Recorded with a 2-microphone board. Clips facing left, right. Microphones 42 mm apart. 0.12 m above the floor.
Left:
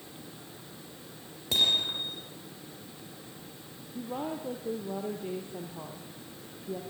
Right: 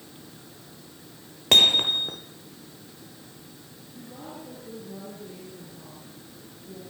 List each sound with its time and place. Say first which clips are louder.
1.5 s hammering: right 8 dB; 65° right (ahead or behind), 2.5 m
4.0 s a woman speaking: left 6 dB; 60° left (ahead or behind), 4.5 m